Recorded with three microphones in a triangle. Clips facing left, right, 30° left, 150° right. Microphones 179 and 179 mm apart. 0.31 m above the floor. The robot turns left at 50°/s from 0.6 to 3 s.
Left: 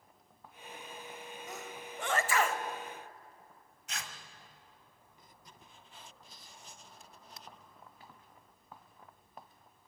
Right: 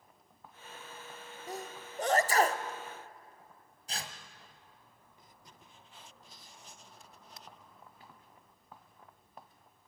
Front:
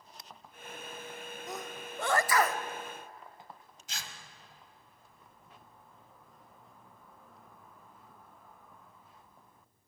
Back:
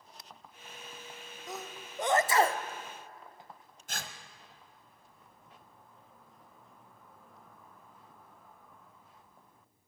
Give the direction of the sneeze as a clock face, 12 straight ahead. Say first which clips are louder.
Right 5 dB, even; 2 o'clock.